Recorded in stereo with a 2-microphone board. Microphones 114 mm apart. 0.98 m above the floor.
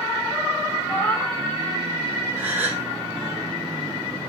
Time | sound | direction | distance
0.9 | a cat meowing | 15° left (ahead or behind) | 2.0 m
2.4 | a gasp | 15° right (ahead or behind) | 4.5 m